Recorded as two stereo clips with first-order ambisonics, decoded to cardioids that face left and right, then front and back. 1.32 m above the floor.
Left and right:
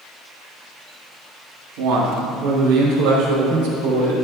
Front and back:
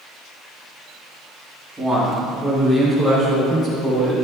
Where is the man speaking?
90° right, 2 m; by 4.2 s 75° right, 5 m.